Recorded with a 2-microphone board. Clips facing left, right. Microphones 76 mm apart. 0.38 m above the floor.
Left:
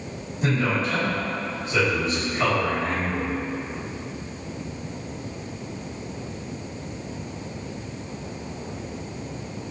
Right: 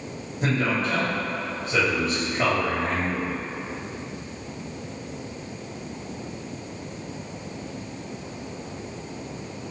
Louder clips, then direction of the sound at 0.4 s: Even; 35° right (ahead or behind).